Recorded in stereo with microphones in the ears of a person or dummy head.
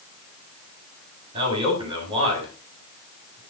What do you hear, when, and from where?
1.3 s a man speaking: 25° right (ahead or behind), 7.5 m